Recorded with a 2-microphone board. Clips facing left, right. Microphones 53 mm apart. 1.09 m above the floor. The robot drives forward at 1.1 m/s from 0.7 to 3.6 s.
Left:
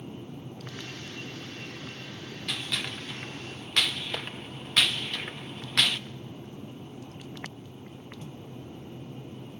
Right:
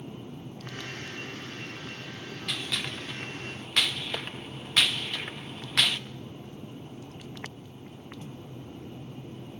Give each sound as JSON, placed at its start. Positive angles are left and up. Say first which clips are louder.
{"t": 2.5, "sound": "a gunshot", "louder": "even", "side_deg": 0, "distance_m": 1.8}